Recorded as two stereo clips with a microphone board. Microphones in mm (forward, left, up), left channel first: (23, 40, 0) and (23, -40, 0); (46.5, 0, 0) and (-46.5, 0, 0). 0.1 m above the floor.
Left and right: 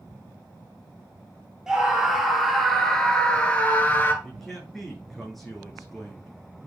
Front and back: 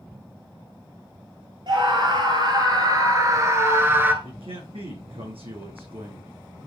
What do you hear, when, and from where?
1.7 s a scream: 170° right, 2.0 m; by 4.1 s 130° left, 1.4 m
4.2 s a man speaking: straight behind, 6 m